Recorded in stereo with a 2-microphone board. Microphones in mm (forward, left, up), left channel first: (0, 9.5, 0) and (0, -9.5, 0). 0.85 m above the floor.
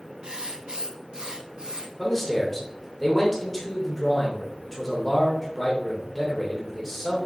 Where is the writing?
55° right (ahead or behind), 0.9 m.